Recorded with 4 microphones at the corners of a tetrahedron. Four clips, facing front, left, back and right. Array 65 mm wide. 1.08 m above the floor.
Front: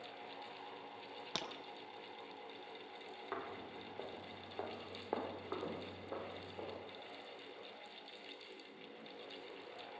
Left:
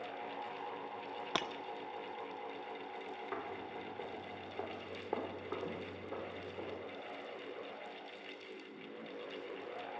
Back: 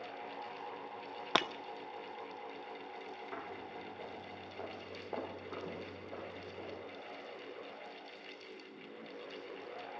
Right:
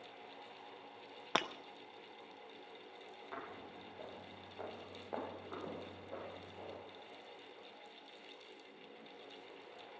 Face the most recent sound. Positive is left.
turn(degrees=30)